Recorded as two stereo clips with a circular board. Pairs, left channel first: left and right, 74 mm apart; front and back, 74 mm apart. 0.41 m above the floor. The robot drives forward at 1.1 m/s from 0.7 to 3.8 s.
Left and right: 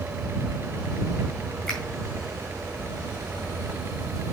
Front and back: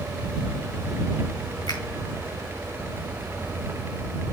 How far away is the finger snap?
About 4 m.